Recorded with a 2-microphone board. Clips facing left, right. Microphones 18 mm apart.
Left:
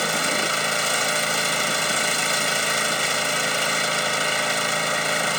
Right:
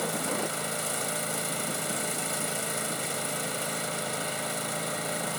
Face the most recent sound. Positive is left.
turn(degrees=50)  # may be behind; listen again after turning